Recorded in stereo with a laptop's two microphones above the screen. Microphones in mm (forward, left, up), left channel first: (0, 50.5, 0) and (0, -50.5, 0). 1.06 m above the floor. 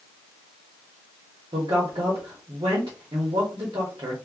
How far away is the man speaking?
About 0.9 m.